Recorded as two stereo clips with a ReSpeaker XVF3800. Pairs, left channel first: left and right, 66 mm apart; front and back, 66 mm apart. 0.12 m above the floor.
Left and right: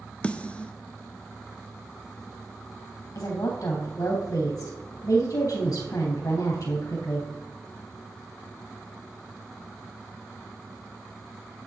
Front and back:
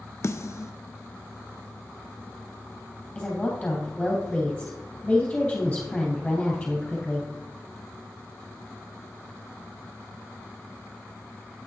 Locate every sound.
0.2 s a snare drum: 25° left, 0.5 m
3.1 s a woman speaking: 80° left, 2.5 m